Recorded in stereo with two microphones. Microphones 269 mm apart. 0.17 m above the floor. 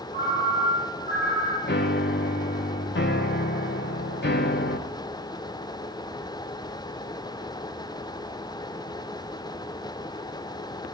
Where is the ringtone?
30° right (ahead or behind), 2.5 m.